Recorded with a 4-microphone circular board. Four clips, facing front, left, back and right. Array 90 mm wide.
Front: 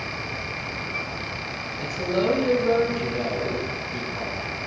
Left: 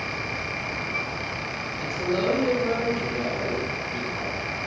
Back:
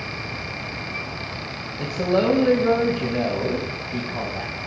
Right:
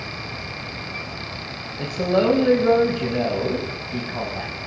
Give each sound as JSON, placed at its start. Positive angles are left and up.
{"t": 1.8, "sound": "a man speaking", "azimuth_deg": -125, "distance_m": 3.0}